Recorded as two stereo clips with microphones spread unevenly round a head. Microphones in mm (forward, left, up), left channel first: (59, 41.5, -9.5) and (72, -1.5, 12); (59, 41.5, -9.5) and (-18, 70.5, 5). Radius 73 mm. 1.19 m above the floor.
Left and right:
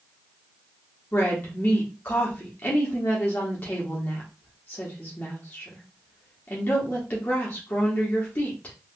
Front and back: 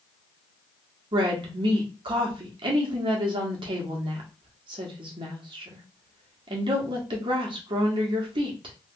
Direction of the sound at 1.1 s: 140° left.